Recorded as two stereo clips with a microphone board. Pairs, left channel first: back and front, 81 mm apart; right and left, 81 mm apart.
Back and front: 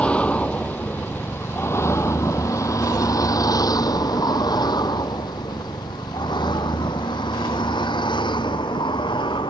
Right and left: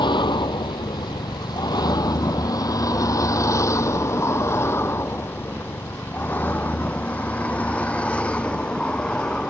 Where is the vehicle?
105° right; by 9.5 s 170° right.